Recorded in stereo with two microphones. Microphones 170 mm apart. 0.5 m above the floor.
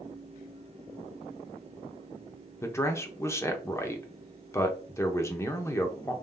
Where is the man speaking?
15° left (ahead or behind), 0.8 m.